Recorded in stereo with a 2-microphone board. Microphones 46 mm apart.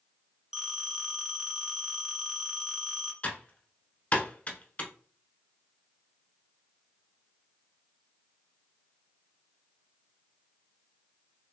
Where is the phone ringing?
5° right (ahead or behind), 0.8 m.